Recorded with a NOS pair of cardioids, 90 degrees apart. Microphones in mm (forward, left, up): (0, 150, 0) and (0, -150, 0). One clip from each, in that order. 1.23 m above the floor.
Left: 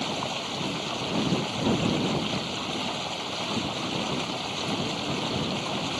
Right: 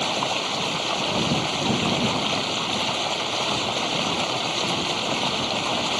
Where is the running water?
50° right.